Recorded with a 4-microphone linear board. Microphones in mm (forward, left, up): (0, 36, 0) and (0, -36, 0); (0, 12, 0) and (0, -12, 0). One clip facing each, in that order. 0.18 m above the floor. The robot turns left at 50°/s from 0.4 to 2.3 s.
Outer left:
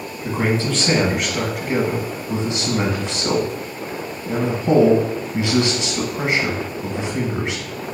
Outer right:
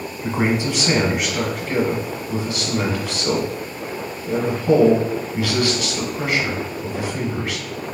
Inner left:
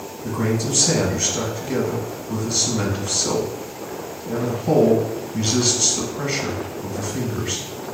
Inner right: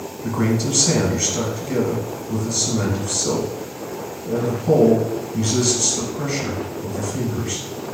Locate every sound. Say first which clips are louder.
0.2 s a man speaking: even, inner right 2 dB; 135° right, 1.1 m; by 7.6 s 130° left, 1.1 m